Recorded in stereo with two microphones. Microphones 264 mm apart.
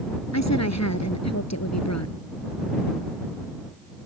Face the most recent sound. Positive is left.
turn(degrees=75)  # may be behind; listen again after turning